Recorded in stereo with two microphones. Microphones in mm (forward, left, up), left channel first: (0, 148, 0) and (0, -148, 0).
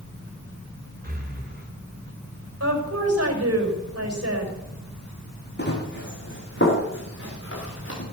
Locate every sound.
1.0 s breathing: 30° right (ahead or behind), 3 m
2.6 s a woman speaking: 55° right (ahead or behind), 5.5 m
5.6 s running footsteps: 35° left (ahead or behind), 4.5 m; by 8.0 s 45° left (ahead or behind), 7.5 m